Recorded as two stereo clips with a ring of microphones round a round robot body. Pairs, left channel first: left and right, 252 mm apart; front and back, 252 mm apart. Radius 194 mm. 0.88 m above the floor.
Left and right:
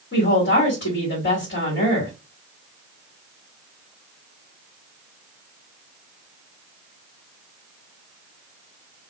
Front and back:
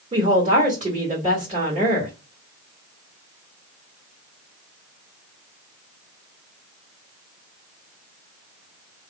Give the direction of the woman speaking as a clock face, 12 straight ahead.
8 o'clock.